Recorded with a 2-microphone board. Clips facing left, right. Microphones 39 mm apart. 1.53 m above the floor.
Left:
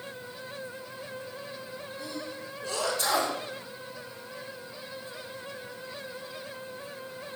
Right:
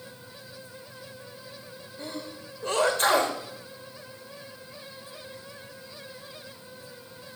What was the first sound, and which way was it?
A sneeze, 50° right (ahead or behind).